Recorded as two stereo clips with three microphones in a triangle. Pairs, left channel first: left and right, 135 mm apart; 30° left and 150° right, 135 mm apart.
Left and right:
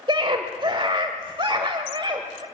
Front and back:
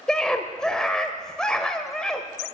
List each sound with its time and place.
0.1 s a scream: 55° right, 1.3 m